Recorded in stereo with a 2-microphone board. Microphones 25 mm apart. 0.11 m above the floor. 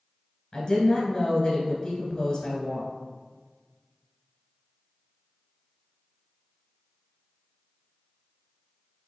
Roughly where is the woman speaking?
Left.